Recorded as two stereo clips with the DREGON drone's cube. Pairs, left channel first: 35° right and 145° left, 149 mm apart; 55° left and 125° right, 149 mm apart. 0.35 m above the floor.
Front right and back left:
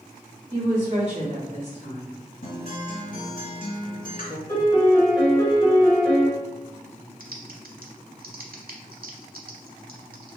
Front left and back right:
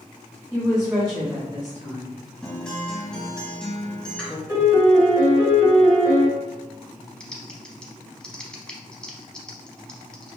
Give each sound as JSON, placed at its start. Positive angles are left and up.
{"t": 0.5, "sound": "a woman speaking", "azimuth_deg": 155, "distance_m": 1.9}
{"t": 2.4, "sound": "a guitar", "azimuth_deg": -30, "distance_m": 0.9}
{"t": 4.5, "sound": "a piano", "azimuth_deg": -80, "distance_m": 1.5}
{"t": 7.2, "sound": "typing on a keyboard", "azimuth_deg": 140, "distance_m": 0.6}